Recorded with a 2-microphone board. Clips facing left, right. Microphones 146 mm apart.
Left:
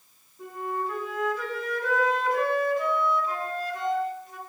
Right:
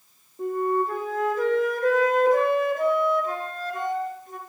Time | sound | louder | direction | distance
0.4 | a flute | right 8 dB | 50° right (ahead or behind) | 4 m